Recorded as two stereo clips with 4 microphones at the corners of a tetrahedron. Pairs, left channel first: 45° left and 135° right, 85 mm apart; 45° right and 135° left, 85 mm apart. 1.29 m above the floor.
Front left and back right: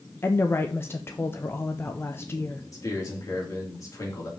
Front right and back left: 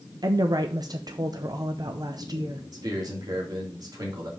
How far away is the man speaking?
About 3 m.